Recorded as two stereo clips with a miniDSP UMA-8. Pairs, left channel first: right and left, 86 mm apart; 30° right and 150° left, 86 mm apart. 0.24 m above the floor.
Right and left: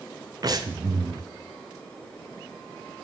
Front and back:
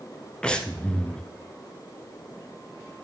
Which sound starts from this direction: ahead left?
Breathing, at 0.4 s.